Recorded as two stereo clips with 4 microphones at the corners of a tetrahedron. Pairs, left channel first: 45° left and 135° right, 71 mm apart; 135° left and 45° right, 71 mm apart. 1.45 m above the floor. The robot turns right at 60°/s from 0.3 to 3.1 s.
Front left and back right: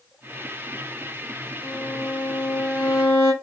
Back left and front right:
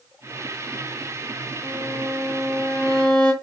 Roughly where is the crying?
No crying in this recording.